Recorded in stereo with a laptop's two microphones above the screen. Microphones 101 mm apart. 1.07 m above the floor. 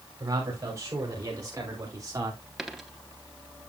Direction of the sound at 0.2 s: 35° right (ahead or behind).